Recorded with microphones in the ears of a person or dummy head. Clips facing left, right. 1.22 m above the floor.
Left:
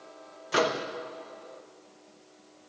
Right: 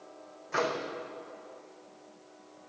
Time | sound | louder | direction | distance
0.5 | a microwave | left 4 dB | 55° left (ahead or behind) | 0.8 m